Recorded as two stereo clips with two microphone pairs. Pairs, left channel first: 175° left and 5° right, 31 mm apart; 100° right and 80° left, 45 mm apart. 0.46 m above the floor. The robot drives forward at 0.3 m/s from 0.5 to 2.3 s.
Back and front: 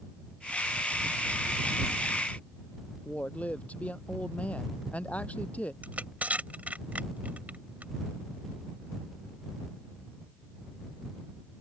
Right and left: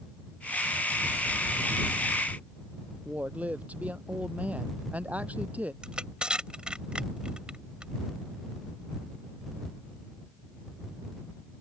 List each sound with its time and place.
3.0 s a woman speaking: 135° left
5.8 s crushing: 15° left